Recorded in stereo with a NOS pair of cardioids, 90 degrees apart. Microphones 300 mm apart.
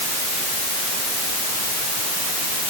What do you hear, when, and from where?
Only background noise.